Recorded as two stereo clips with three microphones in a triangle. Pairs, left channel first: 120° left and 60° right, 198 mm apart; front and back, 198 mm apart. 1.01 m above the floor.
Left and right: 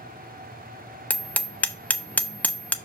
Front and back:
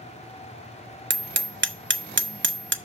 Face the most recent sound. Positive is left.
turn(degrees=-155)